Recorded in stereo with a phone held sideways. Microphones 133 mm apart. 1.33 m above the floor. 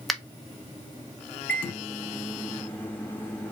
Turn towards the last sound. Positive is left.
turn(degrees=15)  # may be behind; listen again after turning